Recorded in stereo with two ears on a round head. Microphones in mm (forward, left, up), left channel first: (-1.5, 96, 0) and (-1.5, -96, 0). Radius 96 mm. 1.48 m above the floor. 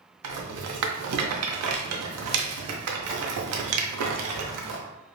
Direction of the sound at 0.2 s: 80° right.